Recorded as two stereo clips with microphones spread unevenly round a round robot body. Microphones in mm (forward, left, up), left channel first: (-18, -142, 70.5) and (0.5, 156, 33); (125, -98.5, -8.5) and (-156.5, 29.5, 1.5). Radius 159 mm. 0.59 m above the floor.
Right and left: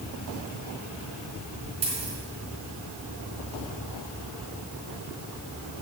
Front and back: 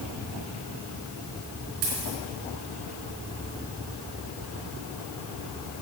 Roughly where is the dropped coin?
Behind left.